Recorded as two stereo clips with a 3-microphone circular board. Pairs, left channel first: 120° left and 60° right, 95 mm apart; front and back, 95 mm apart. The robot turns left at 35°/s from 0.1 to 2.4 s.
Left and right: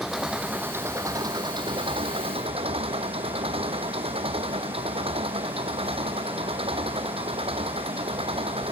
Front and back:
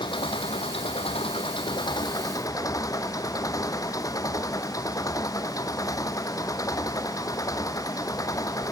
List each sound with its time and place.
0.0 s an engine running: 30° left; by 8.7 s 50° right